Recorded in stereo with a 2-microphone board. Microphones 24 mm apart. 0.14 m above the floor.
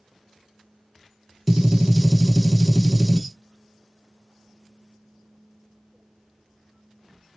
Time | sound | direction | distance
1.5 | a gunshot | 10° right (ahead or behind) | 1.1 m